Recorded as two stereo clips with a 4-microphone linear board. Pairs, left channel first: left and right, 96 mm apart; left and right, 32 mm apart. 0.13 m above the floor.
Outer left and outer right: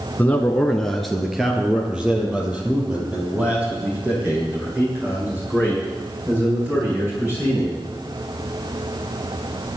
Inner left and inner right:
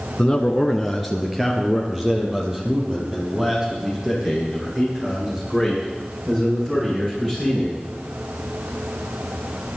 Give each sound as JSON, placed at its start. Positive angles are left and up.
{"t": 0.2, "sound": "a man speaking", "side_deg": 20, "distance_m": 1.3}